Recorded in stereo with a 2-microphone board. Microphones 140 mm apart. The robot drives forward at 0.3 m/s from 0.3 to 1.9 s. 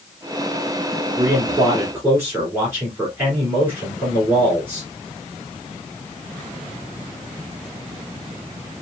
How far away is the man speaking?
About 1.5 m.